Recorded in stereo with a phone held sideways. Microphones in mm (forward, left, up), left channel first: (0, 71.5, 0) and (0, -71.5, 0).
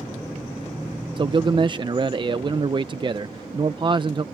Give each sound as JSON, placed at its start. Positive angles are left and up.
{"t": 1.2, "sound": "a man speaking", "side_deg": -35}